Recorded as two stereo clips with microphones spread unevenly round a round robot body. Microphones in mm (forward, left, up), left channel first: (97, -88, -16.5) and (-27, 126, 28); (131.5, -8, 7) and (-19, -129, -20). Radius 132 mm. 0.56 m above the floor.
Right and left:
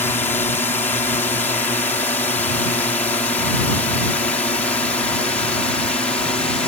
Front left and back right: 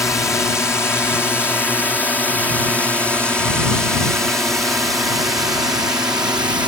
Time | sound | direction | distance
0.0 | a drone | 30° right | ?